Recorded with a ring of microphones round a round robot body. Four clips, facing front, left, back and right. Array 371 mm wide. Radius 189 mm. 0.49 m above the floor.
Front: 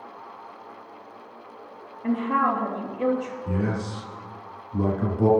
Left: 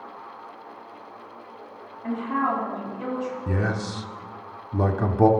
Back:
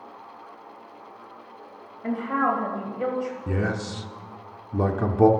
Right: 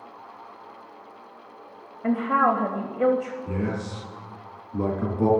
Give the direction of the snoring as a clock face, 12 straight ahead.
I don't hear snoring.